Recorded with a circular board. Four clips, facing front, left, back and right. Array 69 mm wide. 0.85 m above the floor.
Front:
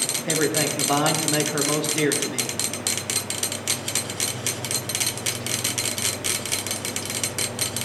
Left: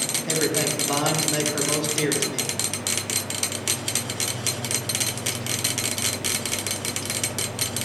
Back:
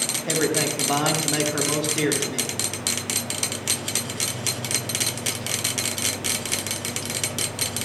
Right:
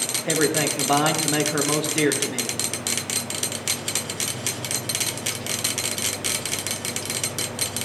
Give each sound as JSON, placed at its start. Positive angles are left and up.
{"t": 0.2, "sound": "a man speaking", "azimuth_deg": -75, "distance_m": 1.0}